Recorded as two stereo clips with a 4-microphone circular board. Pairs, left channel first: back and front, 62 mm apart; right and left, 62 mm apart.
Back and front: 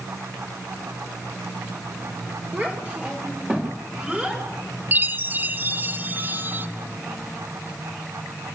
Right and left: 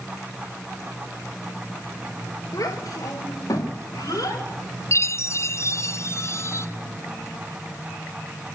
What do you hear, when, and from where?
2.5 s a child speaking: 65° right, 3.5 m
4.9 s a chime: 55° right, 0.6 m